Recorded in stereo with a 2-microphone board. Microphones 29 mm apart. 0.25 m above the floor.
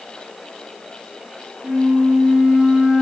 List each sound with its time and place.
1.6 s a flute: 40° right (ahead or behind), 3.5 m